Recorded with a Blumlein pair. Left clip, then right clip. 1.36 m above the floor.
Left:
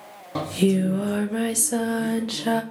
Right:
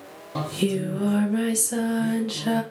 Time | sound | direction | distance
0.3 | singing | 10° left | 0.6 m